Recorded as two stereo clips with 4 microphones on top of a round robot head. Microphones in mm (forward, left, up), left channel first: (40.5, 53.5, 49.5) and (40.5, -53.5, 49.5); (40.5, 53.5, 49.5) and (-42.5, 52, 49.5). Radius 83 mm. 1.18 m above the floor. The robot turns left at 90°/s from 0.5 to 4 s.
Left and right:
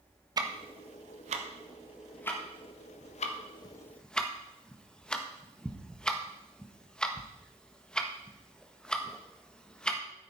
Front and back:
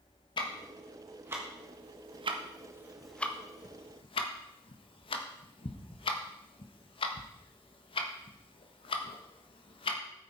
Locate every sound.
0.4 s ticking: 35° right, 1.5 m; by 10.0 s 10° left, 1.5 m